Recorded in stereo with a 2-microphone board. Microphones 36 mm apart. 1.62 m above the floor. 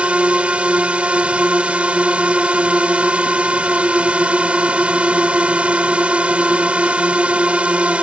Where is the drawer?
No drawer in this recording.